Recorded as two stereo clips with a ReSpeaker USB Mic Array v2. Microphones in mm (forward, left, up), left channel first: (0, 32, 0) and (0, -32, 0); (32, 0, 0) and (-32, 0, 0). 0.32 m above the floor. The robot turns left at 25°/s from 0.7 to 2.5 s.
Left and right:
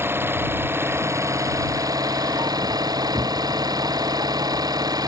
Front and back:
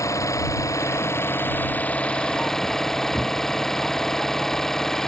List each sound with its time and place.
0.0 s an engine running: 40° right; by 5.1 s 85° right